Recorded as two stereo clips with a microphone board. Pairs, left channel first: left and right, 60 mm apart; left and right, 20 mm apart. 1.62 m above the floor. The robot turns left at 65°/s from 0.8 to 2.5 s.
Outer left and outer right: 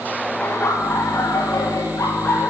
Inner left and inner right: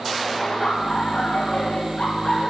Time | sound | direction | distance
0.4 | laughter | 145° left | 1.8 m